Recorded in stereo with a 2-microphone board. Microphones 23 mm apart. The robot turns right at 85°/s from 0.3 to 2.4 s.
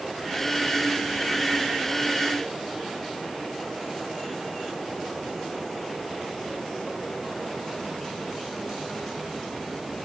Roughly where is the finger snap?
I don't hear a finger snap.